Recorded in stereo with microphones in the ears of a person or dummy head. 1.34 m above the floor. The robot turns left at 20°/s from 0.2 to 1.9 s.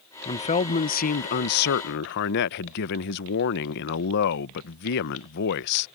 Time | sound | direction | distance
0.2 | a man speaking | 150° left | ?